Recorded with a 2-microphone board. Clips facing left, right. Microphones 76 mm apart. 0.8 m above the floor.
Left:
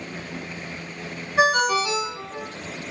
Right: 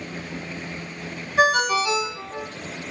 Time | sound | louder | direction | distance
1.4 | a ringtone | even | 25° left (ahead or behind) | 1.0 m